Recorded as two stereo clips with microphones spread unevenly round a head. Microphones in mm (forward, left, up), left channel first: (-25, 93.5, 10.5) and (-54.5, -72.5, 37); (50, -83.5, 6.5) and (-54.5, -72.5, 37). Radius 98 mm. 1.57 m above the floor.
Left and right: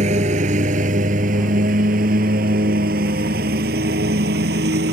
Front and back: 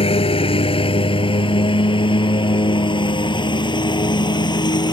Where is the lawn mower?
45° right; by 4.9 s 55° right.